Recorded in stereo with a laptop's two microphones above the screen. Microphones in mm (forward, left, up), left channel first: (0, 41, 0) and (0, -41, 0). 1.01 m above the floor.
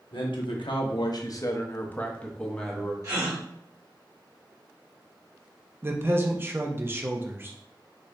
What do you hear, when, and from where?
0.1 s a man speaking: 75° left (ahead or behind), 0.8 m; by 2.9 s centre (ahead or behind), 1.2 m
3.0 s a gasp: 40° right (ahead or behind), 1.6 m
5.8 s a man speaking: 30° right (ahead or behind), 0.7 m